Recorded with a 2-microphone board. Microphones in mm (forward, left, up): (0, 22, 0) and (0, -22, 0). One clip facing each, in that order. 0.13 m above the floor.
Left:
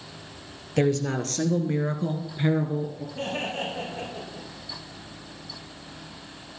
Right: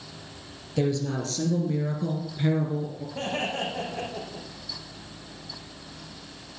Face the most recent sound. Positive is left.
turn(degrees=-60)  # may be behind; listen again after turning